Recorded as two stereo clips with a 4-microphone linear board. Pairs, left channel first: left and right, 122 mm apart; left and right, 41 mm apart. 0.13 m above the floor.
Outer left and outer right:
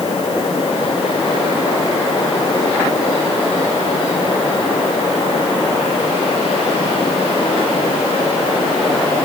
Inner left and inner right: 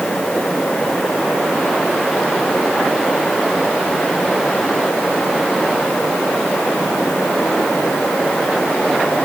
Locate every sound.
Only background noise.